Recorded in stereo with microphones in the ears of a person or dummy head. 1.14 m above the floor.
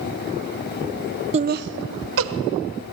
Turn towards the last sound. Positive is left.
turn(degrees=-70)  # may be behind; listen again after turning